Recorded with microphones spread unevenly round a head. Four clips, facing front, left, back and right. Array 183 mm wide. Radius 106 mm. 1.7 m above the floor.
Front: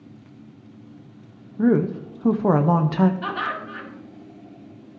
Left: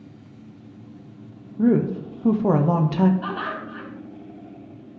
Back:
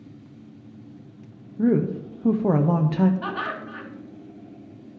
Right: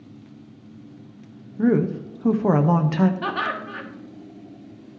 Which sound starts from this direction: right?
Laughter, at 3.2 s.